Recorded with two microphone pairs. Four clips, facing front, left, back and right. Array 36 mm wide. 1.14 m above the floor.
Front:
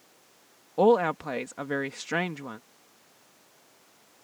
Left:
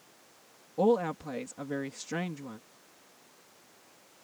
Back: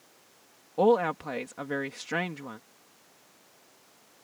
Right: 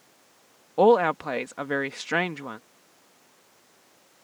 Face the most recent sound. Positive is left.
turn(degrees=-80)